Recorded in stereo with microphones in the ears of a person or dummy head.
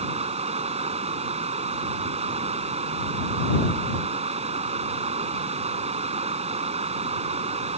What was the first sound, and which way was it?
Running water, 35° right (ahead or behind).